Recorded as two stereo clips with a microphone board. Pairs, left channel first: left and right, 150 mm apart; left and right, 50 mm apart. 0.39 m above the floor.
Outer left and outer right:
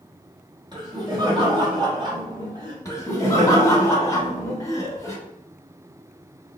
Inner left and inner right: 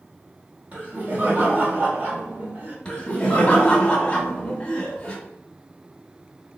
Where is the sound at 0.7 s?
30° right (ahead or behind), 1.0 m.